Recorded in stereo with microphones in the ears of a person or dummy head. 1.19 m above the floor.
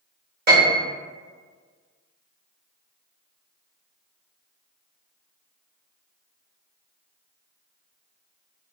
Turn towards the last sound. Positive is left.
turn(degrees=-50)  # may be behind; listen again after turning